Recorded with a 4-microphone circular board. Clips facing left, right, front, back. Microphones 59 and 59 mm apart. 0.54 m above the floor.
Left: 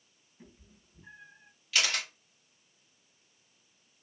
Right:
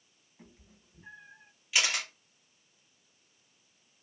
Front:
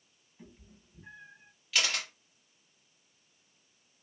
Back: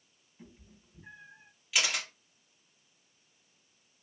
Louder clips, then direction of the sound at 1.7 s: Even, even; 120° right.